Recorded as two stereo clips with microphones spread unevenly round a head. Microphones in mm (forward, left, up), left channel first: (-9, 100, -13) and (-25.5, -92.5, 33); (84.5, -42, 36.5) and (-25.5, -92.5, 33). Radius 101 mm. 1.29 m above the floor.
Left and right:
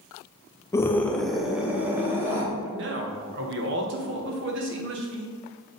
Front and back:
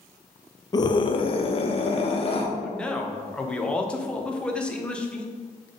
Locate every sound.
0.7 s a scream: 55° left, 0.5 m; by 2.5 s 10° right, 1.2 m
2.6 s a man speaking: 55° right, 1.2 m